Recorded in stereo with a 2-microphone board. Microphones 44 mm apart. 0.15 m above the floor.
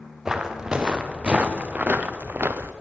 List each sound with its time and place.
0.2 s footsteps: 15° right (ahead or behind), 1.7 m; by 2.7 s 65° right (ahead or behind), 0.8 m